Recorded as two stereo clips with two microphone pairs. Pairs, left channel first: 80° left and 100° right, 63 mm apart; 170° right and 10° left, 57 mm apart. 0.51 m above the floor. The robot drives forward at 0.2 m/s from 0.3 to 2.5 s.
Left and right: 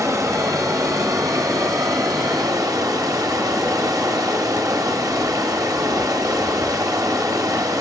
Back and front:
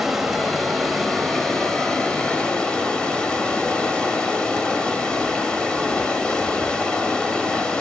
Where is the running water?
75° right, 1.3 m; by 7.8 s 95° right, 1.2 m.